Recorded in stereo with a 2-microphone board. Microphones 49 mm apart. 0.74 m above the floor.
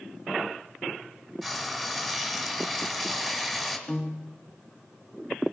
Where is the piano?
15° left (ahead or behind), 0.8 m.